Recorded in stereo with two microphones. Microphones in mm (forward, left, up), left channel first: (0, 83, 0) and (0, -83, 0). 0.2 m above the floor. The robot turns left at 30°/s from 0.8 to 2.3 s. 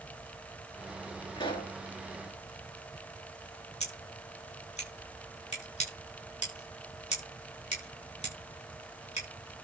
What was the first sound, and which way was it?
A pop, 30° left (ahead or behind).